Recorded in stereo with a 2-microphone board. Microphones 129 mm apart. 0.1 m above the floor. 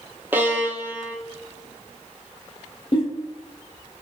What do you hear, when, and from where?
0.3 s a violin: 15° right (ahead or behind), 0.6 m
2.9 s a giggle: 40° left (ahead or behind), 1.3 m